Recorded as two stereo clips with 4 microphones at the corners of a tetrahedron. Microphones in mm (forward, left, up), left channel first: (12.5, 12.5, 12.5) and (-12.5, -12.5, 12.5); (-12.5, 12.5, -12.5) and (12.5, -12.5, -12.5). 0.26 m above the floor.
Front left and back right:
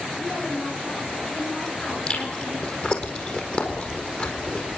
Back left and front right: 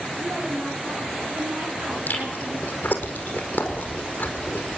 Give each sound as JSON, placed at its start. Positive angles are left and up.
{"t": 0.2, "sound": "a woman speaking", "azimuth_deg": -20, "distance_m": 6.0}
{"t": 2.1, "sound": "chewing", "azimuth_deg": 95, "distance_m": 4.5}